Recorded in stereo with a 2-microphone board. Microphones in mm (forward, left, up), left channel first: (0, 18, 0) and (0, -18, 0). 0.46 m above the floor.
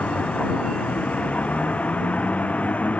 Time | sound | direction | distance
0.0 | a vehicle | 40° left (ahead or behind) | ?